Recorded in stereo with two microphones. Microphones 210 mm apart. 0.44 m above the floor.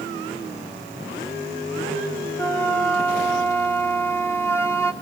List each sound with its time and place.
2.4 s a flute: 10° left (ahead or behind), 0.9 m